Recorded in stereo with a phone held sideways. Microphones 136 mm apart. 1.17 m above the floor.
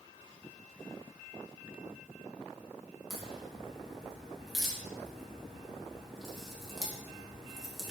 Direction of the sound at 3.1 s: Centre (ahead or behind).